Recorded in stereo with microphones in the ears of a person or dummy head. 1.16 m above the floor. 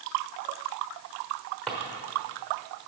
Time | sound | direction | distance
1.7 | a drawer | 10° left (ahead or behind) | 1.1 m